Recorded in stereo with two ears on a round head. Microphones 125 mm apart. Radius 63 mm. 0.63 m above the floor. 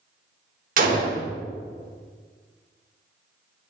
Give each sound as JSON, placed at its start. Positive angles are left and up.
{"t": 0.8, "sound": "a gunshot", "side_deg": -65, "distance_m": 1.3}